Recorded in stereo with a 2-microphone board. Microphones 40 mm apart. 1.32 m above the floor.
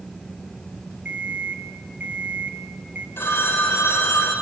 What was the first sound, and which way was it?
An alarm clock, 50° right (ahead or behind).